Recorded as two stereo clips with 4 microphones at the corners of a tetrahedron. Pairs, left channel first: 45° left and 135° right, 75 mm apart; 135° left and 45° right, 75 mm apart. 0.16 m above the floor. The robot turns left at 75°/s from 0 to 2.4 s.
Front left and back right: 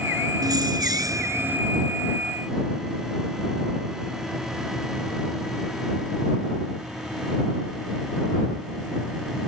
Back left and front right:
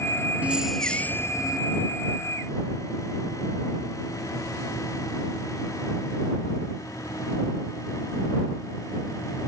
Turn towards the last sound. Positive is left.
turn(degrees=100)